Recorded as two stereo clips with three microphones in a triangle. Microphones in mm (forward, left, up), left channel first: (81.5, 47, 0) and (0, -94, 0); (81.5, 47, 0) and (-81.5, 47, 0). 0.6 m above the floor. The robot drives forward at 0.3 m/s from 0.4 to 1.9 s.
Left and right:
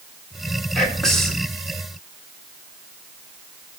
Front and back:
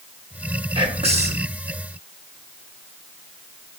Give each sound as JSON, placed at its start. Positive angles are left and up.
{"t": 0.8, "sound": "whispering", "azimuth_deg": 140, "distance_m": 0.9}